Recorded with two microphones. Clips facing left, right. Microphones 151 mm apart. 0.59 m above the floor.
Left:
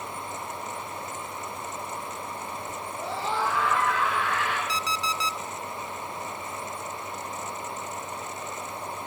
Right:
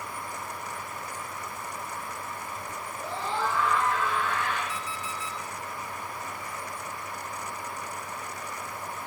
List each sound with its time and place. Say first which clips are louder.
2.9 s a scream: left 2 dB; 70° left (ahead or behind), 6 m; by 4.6 s 80° left, 8 m
4.7 s an alarm clock: left 5 dB; 85° left, 1.1 m